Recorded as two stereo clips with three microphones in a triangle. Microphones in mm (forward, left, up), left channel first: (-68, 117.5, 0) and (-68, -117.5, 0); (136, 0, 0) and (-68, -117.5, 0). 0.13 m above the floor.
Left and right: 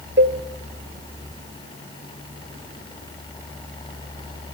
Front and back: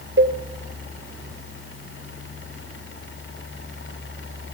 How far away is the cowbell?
About 1.1 m.